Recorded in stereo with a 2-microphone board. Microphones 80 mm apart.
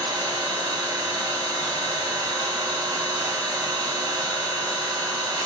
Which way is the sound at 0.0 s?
65° right (ahead or behind).